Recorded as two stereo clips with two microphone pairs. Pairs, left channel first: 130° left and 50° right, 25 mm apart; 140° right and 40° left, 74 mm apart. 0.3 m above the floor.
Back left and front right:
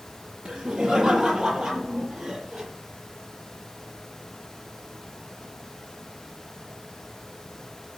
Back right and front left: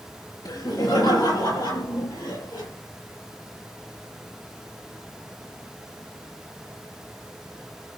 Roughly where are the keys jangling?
I don't hear keys jangling.